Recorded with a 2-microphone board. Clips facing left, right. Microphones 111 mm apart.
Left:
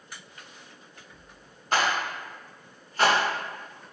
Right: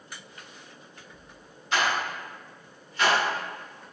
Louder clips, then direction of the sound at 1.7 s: Left 1 dB; 45° left (ahead or behind).